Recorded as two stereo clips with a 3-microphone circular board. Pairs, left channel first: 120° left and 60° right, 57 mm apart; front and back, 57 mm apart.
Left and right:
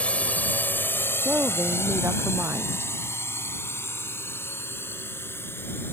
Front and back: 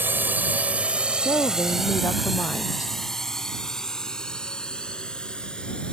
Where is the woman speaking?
10° right.